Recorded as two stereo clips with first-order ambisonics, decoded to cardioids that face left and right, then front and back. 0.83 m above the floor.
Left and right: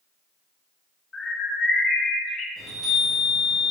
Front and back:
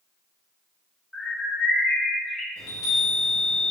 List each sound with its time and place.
1.1 s a bird: 55° left, 0.5 m
2.6 s a chime: 15° right, 1.4 m